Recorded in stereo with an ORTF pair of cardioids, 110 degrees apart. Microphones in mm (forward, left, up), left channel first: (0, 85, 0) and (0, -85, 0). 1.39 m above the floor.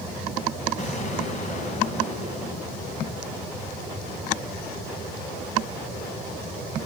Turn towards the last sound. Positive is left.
turn(degrees=45)